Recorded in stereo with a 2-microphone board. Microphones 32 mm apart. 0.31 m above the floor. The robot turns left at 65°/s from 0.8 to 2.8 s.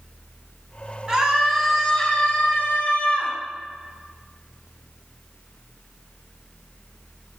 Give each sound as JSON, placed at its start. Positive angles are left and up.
{"t": 1.1, "sound": "a scream", "azimuth_deg": -150, "distance_m": 2.5}